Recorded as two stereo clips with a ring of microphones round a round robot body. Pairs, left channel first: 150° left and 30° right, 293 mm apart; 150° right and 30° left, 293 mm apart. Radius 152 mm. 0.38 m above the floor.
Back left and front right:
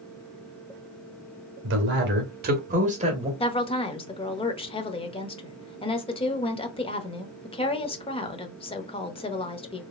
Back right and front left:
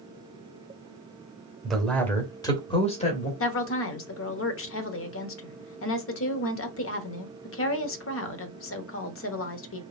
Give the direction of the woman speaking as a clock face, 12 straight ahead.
5 o'clock.